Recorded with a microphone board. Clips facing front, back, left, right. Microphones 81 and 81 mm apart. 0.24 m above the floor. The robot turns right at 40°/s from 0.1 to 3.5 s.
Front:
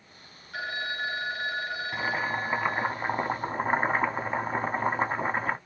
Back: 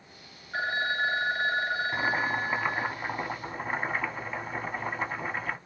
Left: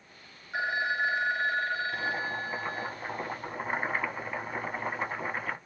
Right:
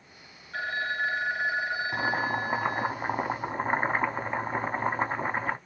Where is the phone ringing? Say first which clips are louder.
Back 4 dB, left 1 dB; 150° left, 0.7 m; by 2.9 s 115° right, 0.7 m.